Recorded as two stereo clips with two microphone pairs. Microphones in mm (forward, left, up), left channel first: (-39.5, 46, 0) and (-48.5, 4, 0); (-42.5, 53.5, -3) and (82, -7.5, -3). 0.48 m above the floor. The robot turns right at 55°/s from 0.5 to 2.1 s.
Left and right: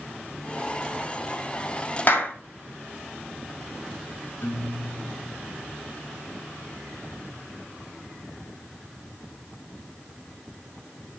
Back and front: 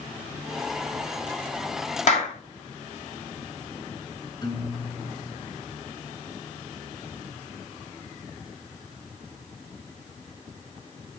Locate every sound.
2.1 s a clap: 125° left, 2 m
4.4 s a guitar: 100° left, 3 m